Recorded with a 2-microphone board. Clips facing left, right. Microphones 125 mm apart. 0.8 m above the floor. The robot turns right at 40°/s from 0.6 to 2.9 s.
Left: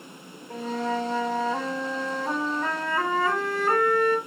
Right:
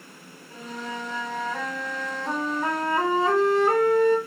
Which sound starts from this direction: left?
A flute, at 0.5 s.